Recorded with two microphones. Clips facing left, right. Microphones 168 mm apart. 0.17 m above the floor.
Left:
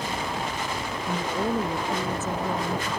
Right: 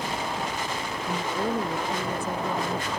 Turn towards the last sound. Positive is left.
turn(degrees=5)  # may be behind; listen again after turning